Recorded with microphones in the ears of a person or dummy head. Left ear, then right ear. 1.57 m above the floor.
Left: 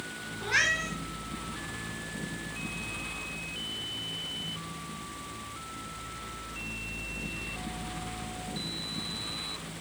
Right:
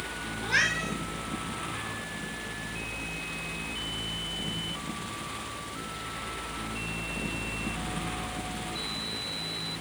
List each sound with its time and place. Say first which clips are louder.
0.4 s a cat meowing: even; 5° left (ahead or behind), 5 m